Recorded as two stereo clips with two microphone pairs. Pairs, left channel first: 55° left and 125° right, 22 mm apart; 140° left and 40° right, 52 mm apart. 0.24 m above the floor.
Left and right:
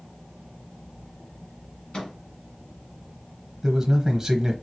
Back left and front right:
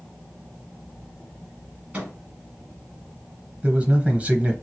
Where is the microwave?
15° left, 1.7 m.